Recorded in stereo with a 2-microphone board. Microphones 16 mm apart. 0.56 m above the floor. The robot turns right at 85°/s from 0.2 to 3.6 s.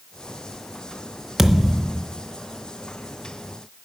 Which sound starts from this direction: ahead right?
A thud, at 1.4 s.